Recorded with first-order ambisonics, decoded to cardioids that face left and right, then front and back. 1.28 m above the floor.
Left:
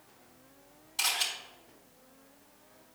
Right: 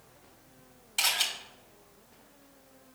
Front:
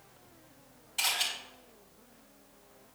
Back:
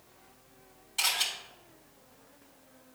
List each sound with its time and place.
1.0 s a camera shutter: 95° right, 3 m